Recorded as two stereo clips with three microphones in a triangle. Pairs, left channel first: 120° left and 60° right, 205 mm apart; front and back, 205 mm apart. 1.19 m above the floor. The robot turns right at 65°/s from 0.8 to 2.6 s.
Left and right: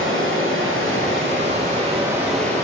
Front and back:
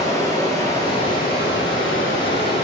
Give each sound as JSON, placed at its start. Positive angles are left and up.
{"t": 0.0, "sound": "running water", "azimuth_deg": -70, "distance_m": 2.5}